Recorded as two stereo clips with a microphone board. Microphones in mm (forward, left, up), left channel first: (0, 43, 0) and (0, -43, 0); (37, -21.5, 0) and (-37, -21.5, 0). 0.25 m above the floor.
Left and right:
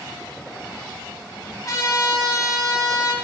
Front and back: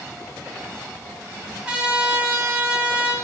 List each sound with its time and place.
1.6 s a trumpet: 115° left, 1.5 m